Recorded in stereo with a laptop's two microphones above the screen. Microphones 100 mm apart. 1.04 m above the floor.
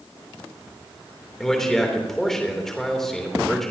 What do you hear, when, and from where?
1.4 s a man speaking: 5° left (ahead or behind), 3 m